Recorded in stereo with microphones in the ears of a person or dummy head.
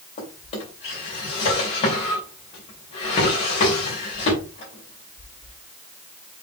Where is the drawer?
30° left (ahead or behind), 2.5 m.